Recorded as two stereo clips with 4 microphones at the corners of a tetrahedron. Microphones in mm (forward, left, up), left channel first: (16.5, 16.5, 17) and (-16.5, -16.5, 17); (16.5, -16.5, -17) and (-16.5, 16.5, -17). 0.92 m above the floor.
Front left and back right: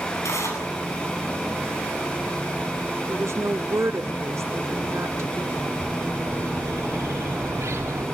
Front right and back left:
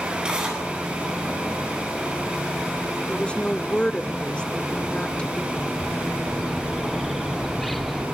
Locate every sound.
0.2 s tearing paper: 60° left, 9.5 m
3.1 s a woman speaking: 115° right, 2.0 m
5.6 s a bird: 135° right, 1.9 m